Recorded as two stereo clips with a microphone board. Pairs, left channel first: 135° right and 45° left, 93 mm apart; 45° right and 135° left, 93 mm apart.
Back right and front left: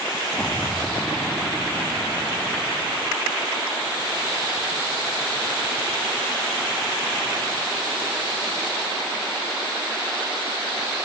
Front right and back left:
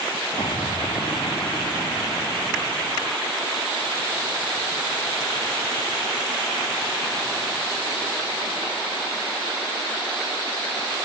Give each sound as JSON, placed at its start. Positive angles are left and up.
{"t": 0.4, "sound": "an explosion", "azimuth_deg": -65}